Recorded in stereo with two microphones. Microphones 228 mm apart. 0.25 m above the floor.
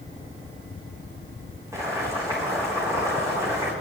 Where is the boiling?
10° right (ahead or behind), 6.5 m.